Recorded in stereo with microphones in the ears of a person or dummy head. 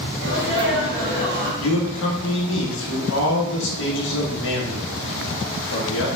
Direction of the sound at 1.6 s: 70° left (ahead or behind).